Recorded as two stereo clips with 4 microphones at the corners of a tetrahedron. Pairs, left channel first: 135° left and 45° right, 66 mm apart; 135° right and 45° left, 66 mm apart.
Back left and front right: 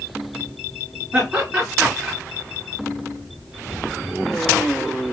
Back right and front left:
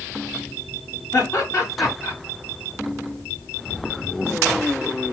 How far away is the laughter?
About 2 m.